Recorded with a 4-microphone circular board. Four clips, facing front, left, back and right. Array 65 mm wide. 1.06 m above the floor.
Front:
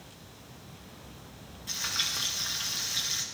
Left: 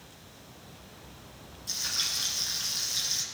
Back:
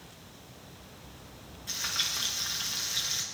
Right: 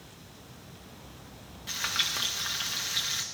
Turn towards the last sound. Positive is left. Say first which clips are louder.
# right 6 dB, front 1 dB
turn(degrees=-90)